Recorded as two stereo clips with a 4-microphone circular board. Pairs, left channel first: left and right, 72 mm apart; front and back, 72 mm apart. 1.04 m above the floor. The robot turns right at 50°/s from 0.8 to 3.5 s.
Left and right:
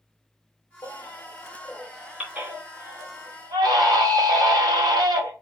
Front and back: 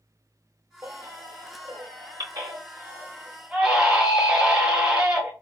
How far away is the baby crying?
About 3 m.